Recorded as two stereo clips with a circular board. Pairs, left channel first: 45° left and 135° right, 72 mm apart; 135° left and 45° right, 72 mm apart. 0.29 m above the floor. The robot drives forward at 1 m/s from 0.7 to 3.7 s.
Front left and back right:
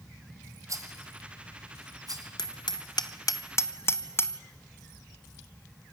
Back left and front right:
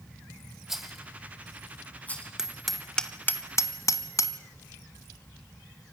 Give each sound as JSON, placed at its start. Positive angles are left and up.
{"t": 0.7, "sound": "a rattle", "azimuth_deg": -125, "distance_m": 1.5}
{"t": 2.4, "sound": "hammering", "azimuth_deg": 35, "distance_m": 1.5}